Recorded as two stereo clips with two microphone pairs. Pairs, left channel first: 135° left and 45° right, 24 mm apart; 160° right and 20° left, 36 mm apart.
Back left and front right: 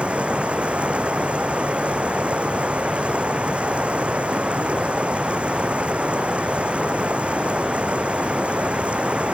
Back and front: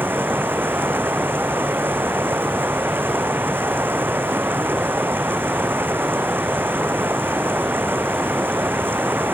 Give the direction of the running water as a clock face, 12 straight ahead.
12 o'clock.